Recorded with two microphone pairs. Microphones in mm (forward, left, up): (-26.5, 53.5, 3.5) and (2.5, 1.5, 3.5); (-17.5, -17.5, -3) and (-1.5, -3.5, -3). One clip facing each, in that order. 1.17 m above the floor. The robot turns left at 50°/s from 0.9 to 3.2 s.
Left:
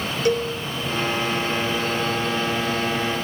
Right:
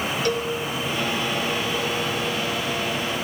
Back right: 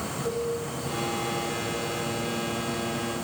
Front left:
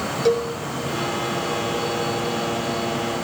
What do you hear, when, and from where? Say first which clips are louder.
0.2 s a cowbell: left 5 dB, front left 10 dB; 55° left, 3.5 m